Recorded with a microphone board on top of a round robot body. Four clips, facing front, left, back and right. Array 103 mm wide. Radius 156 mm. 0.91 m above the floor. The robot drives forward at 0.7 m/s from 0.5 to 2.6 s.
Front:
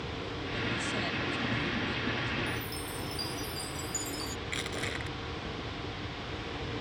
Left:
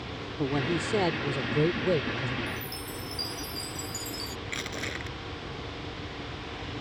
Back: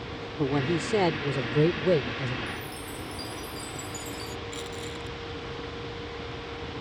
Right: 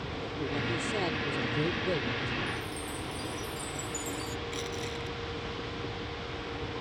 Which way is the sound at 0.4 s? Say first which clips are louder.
Left 6 dB, back 11 dB; 155° left.